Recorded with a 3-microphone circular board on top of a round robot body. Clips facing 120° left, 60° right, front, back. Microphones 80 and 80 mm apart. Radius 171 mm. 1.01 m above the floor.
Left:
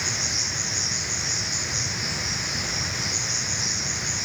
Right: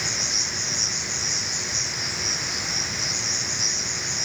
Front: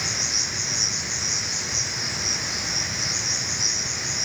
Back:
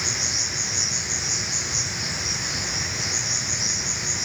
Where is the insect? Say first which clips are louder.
Even, even; 35° right, 7.5 m.